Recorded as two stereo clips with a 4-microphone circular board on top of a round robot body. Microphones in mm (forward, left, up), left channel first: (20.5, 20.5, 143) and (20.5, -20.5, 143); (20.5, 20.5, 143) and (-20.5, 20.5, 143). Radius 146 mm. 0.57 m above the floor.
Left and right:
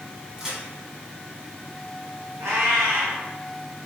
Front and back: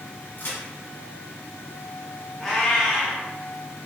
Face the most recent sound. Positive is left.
turn(degrees=-75)